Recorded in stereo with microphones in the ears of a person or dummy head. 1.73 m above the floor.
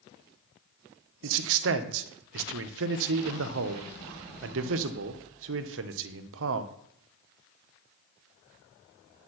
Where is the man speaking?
75° right (ahead or behind), 0.9 m.